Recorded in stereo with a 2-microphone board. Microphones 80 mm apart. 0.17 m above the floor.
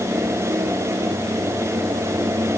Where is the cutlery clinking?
I don't hear cutlery clinking.